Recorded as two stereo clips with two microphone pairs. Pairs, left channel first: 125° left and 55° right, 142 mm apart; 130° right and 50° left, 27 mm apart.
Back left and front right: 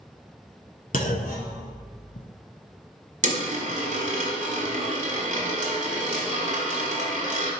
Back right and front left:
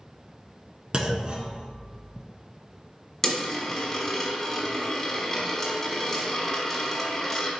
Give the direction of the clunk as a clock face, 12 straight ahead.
8 o'clock.